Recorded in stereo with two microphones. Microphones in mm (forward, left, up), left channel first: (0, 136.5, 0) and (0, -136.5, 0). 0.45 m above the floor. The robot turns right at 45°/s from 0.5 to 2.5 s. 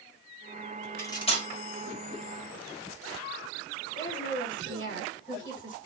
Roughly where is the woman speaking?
Left.